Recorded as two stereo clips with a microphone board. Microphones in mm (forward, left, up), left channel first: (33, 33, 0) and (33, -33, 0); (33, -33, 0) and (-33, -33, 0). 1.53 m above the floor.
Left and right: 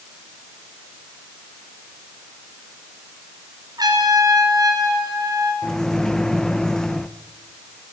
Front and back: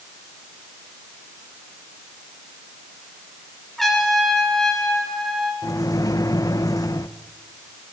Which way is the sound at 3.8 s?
85° right.